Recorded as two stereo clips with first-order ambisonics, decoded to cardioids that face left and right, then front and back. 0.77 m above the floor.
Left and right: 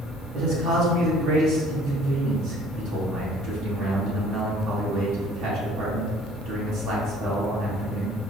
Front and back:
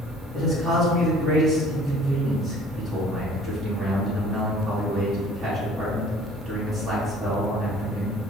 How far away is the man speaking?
About 1.4 m.